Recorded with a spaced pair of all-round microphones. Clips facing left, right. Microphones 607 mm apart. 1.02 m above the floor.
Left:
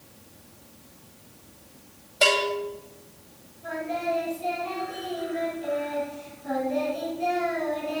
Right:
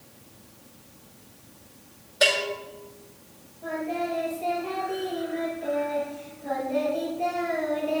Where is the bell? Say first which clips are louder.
Left 2 dB; 40° right (ahead or behind), 5 m.